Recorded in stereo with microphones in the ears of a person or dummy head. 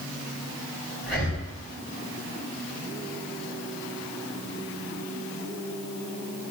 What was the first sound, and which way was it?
Breathing, 10° left (ahead or behind).